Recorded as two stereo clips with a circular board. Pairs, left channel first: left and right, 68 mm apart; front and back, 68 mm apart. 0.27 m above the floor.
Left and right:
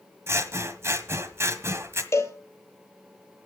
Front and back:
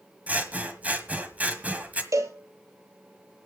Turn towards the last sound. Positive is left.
turn(degrees=140)